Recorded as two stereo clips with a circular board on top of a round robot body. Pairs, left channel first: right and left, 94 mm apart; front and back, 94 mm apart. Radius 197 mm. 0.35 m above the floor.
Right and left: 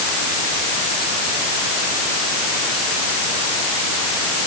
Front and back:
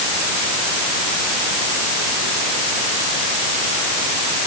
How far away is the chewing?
No chewing in this recording.